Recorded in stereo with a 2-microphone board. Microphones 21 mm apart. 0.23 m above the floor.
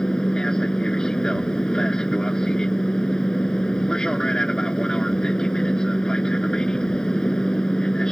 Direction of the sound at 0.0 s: 40° left (ahead or behind).